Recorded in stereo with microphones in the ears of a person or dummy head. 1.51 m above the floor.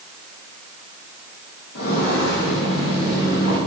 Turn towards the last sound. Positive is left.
turn(degrees=70)  # may be behind; listen again after turning